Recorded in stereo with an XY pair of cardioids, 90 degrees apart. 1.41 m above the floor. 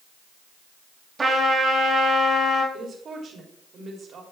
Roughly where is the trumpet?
Ahead right.